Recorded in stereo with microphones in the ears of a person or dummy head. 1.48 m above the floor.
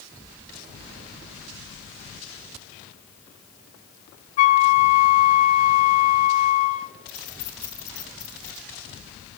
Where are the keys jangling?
60° left (ahead or behind), 2.5 m.